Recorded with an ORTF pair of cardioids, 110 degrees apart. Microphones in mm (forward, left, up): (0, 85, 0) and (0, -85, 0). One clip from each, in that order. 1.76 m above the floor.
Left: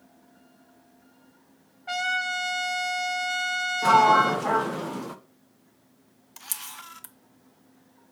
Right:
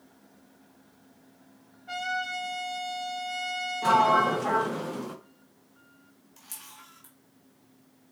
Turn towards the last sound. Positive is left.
turn(degrees=60)